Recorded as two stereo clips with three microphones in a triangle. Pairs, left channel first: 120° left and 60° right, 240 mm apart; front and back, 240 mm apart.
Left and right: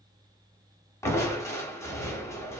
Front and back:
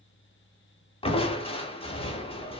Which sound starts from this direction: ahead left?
Crushing, at 1.0 s.